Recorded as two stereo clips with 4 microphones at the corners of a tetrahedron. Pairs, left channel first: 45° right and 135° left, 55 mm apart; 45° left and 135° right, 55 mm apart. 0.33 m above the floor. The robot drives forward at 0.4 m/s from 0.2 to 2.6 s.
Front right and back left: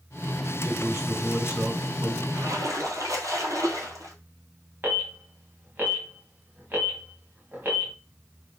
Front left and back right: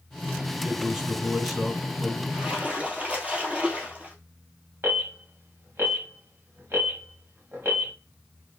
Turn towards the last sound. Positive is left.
turn(degrees=-175)